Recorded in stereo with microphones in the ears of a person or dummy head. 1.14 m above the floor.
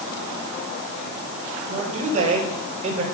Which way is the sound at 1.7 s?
40° right (ahead or behind).